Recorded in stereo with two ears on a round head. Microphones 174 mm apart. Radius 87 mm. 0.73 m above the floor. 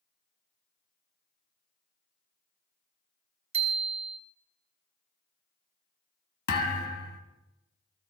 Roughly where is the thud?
Left.